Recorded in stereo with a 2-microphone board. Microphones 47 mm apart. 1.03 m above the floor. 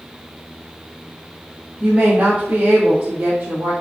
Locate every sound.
1.8 s a woman speaking: 35° right (ahead or behind), 1.5 m; by 3.7 s 70° right (ahead or behind), 2 m